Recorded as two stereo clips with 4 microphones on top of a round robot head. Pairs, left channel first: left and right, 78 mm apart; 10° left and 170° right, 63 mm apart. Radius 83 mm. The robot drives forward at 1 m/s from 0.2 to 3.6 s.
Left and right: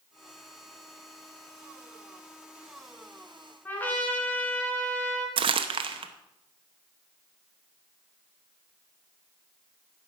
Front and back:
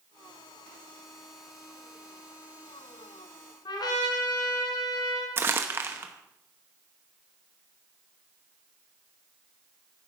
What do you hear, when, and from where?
3.6 s a trumpet: 25° left, 2.5 m
5.4 s crumpling: 110° right, 0.8 m